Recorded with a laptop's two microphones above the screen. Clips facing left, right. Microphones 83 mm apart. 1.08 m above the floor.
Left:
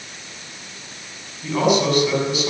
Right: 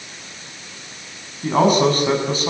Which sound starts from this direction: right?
A man speaking, at 1.4 s.